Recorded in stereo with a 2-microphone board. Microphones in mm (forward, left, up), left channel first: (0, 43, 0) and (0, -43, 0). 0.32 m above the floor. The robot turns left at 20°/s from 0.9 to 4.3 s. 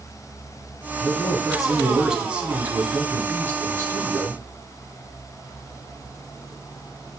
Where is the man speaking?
15° left, 2 m; by 4.4 s 55° right, 2 m.